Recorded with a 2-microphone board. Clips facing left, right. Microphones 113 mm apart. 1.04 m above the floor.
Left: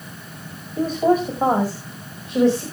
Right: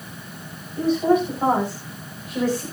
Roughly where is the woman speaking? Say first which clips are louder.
Even; left.